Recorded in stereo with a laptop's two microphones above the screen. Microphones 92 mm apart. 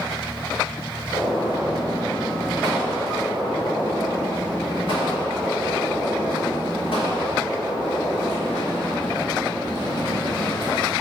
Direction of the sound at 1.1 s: 70° left (ahead or behind).